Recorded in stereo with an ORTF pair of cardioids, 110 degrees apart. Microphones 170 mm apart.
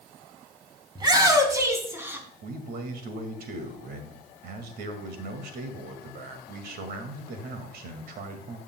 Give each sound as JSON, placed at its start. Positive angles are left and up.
{"t": 0.9, "sound": "a shout", "azimuth_deg": -25, "distance_m": 3.0}
{"t": 2.4, "sound": "a man speaking", "azimuth_deg": -65, "distance_m": 2.0}